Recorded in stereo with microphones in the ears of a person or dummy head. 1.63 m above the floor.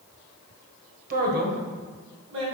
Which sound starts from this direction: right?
A man speaking, at 1.1 s.